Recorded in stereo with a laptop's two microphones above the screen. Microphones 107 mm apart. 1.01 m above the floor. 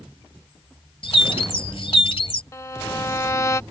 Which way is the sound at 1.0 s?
60° left (ahead or behind).